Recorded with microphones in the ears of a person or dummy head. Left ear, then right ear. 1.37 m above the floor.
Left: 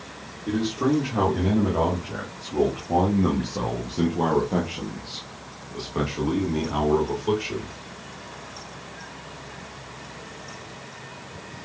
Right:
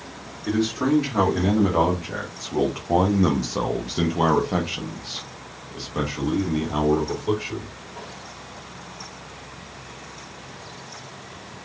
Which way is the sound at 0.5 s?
60° right (ahead or behind).